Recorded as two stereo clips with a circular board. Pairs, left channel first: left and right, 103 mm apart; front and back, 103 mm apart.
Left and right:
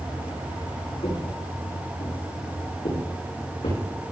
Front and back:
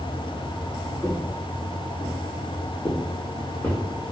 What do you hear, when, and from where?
1.0 s footsteps: 60° left, 6.5 m; by 3.8 s 70° left, 6 m